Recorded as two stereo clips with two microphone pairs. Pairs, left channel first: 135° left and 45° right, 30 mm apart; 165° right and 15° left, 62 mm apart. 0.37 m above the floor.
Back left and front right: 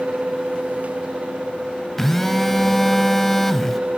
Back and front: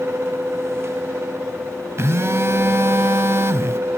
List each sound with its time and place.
2.0 s a phone buzzing: 55° left, 0.6 m